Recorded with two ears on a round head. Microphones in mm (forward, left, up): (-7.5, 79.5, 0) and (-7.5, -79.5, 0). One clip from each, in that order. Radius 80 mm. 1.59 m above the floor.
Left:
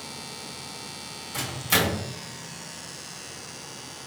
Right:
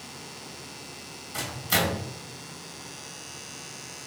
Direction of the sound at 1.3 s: 5° left (ahead or behind).